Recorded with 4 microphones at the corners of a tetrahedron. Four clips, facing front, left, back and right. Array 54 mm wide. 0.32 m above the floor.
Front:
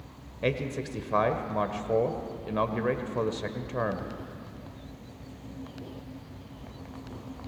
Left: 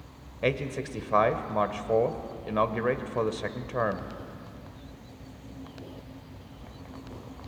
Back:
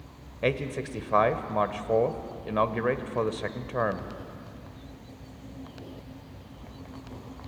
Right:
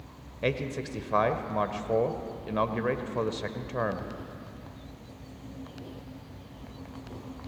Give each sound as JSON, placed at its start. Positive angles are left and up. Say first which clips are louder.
{"t": 0.4, "sound": "a man speaking", "louder": "left 2 dB, back 2 dB", "azimuth_deg": 140, "distance_m": 0.8}